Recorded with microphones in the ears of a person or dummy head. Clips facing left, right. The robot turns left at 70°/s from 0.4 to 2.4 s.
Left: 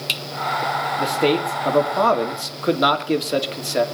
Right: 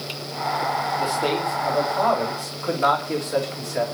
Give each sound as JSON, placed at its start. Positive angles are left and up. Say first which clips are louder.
{"t": 1.0, "sound": "a man speaking", "louder": "left 7 dB", "azimuth_deg": 165, "distance_m": 2.5}